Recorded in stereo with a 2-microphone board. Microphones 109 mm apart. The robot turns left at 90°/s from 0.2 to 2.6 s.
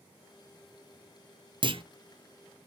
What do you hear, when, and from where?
1.6 s a clunk: 45° right (ahead or behind), 0.6 m; by 1.8 s 50° right (ahead or behind), 0.6 m